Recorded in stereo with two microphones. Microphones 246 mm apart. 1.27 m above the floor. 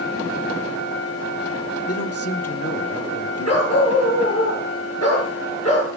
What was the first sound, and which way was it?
A man speaking, 75° left (ahead or behind).